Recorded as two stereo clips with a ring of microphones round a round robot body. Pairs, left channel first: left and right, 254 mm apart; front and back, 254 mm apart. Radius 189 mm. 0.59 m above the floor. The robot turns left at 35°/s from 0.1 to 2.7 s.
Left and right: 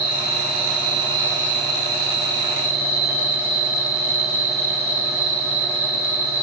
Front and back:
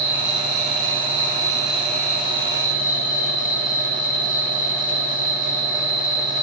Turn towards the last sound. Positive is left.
turn(degrees=60)